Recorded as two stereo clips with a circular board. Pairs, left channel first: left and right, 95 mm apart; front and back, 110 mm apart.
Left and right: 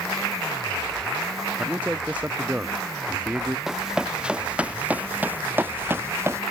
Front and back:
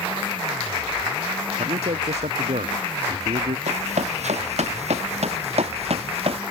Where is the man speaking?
165° right.